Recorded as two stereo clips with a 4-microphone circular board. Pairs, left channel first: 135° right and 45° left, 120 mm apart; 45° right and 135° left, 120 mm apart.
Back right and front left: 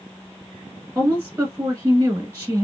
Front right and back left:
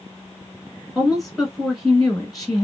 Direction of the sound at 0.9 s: 35° left.